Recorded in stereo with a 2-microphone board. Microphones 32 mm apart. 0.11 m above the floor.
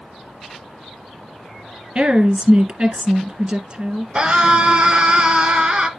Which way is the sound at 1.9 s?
40° right (ahead or behind).